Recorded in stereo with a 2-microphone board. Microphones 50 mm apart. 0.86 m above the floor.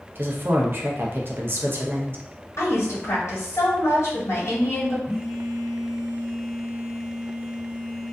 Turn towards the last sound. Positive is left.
turn(degrees=-10)  # may be behind; listen again after turning